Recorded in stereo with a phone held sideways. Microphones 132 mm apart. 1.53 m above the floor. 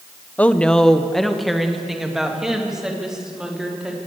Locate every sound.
0.4 s a woman speaking: 10° left (ahead or behind), 0.9 m; by 4.0 s 5° right (ahead or behind), 4 m